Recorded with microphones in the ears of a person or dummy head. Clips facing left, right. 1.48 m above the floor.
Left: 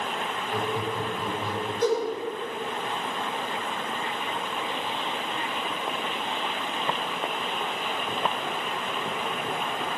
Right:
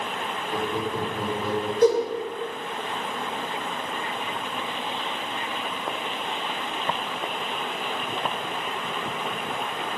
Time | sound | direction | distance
0.5 | laughter | 50° right (ahead or behind) | 3.5 m
1.8 | a whoosh | 75° right (ahead or behind) | 5.5 m